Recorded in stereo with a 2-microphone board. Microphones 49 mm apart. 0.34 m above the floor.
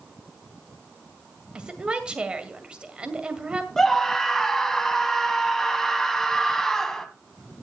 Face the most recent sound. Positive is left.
turn(degrees=10)  # may be behind; listen again after turning